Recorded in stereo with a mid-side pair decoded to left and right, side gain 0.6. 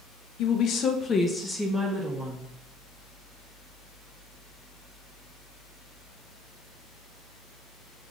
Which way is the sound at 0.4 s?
65° left.